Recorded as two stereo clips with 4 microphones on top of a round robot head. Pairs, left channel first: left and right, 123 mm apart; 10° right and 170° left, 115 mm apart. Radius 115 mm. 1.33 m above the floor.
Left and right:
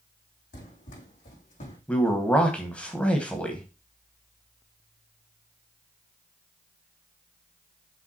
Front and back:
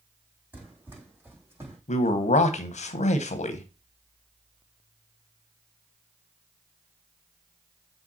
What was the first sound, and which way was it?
Running footsteps, 100° left.